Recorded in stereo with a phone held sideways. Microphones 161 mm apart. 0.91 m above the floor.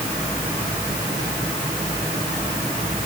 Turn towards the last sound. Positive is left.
No sound to turn to.